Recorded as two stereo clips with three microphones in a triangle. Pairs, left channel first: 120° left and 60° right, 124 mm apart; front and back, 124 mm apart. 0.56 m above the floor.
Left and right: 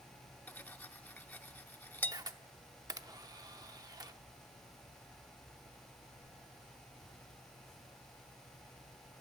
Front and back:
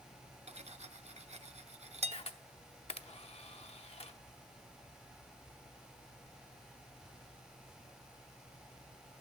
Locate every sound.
0.5 s cutlery clinking: 170° right, 0.5 m
2.1 s a camera shutter: 10° right, 0.7 m